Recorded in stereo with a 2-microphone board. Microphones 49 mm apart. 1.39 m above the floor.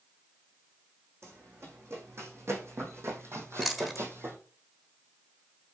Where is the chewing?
10° right (ahead or behind), 1.5 m.